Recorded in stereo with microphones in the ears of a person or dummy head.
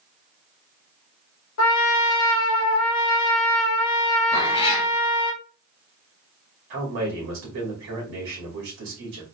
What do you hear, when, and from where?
1.6 s a trumpet: 75° left (ahead or behind), 0.8 m
4.3 s a cat meowing: 35° left (ahead or behind), 1.9 m
6.7 s a man speaking: 70° right (ahead or behind), 1.9 m